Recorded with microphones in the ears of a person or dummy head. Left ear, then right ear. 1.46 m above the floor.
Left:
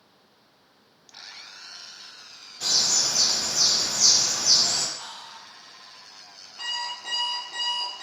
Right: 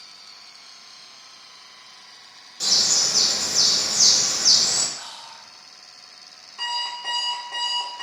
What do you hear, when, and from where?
2.6 s a bird: 80° right, 1.2 m
5.0 s whispering: 75° right (ahead or behind), 1.6 m
6.6 s an alarm clock: 65° right (ahead or behind), 1.4 m